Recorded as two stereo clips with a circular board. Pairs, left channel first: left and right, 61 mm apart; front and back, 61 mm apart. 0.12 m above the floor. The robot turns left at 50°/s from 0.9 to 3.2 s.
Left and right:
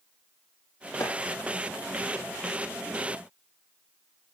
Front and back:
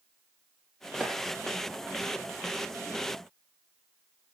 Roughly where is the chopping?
Left.